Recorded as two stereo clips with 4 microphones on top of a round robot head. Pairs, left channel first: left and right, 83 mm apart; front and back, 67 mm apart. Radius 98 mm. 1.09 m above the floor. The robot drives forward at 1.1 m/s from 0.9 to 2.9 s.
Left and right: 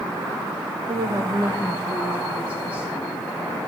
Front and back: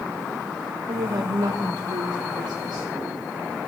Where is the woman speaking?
135° right, 0.8 m; by 2.9 s 170° right, 3 m.